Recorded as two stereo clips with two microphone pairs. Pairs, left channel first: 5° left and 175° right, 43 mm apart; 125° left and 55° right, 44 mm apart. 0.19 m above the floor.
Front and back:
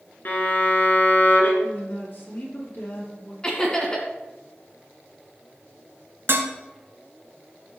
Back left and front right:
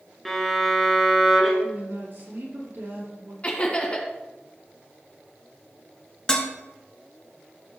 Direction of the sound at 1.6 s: 30° right.